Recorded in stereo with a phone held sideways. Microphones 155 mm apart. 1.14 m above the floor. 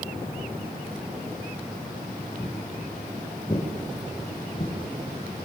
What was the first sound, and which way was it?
Footsteps, 35° left (ahead or behind).